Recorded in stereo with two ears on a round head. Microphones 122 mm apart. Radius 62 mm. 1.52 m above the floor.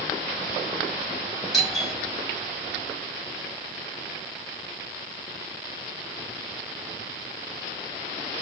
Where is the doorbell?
Centre (ahead or behind), 3.5 m.